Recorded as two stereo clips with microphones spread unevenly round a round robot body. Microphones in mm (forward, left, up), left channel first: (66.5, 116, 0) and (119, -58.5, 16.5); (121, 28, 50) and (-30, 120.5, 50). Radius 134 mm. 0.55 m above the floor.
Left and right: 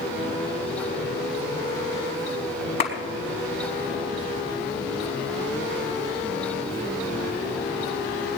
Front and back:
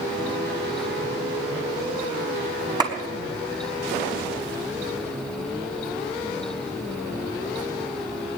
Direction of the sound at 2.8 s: 85° left.